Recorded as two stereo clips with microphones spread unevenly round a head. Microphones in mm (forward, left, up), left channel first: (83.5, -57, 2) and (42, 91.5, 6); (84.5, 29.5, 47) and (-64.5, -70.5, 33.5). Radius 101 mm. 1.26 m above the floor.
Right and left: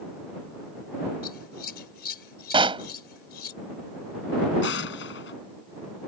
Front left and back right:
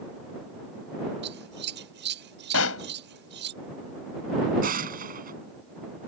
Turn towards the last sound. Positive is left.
turn(degrees=-105)